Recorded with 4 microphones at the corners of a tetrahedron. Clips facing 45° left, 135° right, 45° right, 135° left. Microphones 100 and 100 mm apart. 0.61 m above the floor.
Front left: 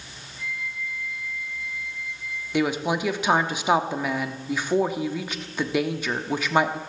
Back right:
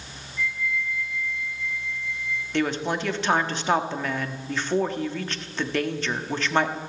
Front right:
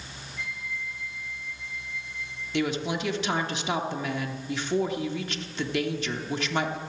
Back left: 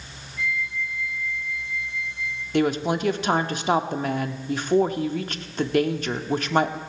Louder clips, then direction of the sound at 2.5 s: Front left 2 dB, back left 6 dB; 125° left.